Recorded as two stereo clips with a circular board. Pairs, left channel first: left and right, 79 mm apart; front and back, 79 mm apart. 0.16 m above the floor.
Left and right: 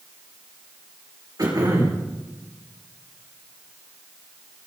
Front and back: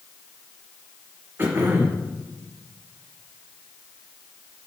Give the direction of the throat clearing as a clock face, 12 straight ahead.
4 o'clock.